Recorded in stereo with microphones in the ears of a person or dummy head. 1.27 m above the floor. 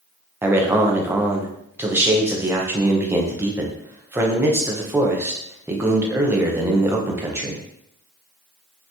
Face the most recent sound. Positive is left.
turn(degrees=-10)  # may be behind; listen again after turning